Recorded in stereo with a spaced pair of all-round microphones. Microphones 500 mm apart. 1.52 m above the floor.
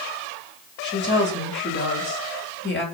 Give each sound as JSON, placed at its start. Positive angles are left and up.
{"t": 0.8, "sound": "a woman speaking", "side_deg": 20, "distance_m": 7.0}